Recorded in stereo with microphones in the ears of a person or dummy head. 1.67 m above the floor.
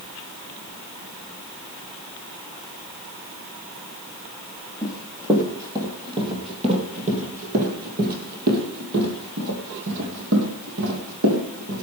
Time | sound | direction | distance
4.8 | running footsteps | 5° right (ahead or behind) | 3 m